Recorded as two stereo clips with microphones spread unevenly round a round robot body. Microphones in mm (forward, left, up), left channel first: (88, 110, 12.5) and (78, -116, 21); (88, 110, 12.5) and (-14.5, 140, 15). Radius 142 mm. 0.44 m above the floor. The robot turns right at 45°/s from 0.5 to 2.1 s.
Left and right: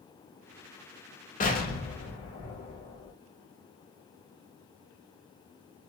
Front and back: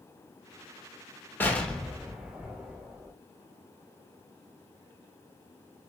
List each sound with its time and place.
1.4 s an explosion: 50° left, 1.0 m; by 3.1 s 80° left, 1.0 m